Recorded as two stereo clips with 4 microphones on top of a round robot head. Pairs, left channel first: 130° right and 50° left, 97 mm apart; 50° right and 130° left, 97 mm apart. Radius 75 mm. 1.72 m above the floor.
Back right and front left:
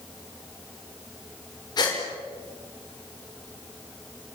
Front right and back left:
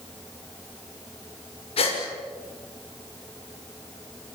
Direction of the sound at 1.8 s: 80° right.